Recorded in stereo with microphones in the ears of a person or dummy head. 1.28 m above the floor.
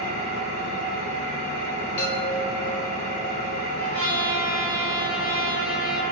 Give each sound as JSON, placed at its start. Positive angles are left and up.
{"t": 0.0, "sound": "an engine running", "side_deg": -80, "distance_m": 1.2}
{"t": 2.0, "sound": "a chime", "side_deg": 10, "distance_m": 1.1}
{"t": 3.8, "sound": "a trumpet", "side_deg": -60, "distance_m": 1.1}